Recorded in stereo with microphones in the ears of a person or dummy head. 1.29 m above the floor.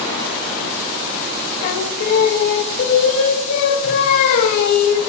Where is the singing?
55° left (ahead or behind), 1.3 m.